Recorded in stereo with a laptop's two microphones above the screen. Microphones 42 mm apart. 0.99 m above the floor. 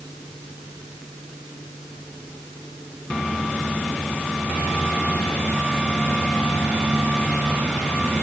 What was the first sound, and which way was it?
Only background noise.